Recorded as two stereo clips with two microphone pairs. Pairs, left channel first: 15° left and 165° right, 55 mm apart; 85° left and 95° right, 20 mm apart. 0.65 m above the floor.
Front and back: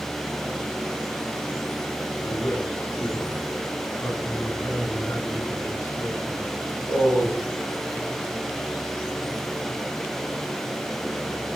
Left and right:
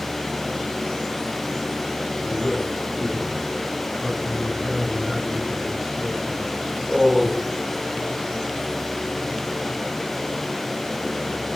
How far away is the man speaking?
About 10 m.